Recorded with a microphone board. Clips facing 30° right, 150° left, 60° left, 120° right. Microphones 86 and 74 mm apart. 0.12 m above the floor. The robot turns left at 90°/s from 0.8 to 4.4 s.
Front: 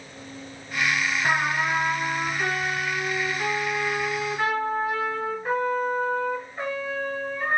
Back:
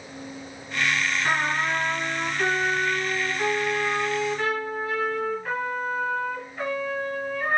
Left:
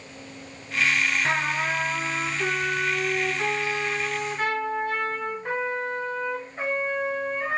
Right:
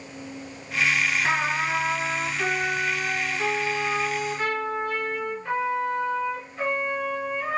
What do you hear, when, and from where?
1.2 s a trumpet: 55° right, 2 m; by 7.6 s 20° left, 2 m